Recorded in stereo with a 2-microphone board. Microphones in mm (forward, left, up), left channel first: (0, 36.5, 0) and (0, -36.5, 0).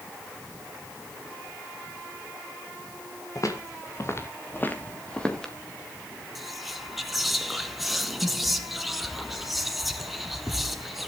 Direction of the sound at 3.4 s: 50° left (ahead or behind).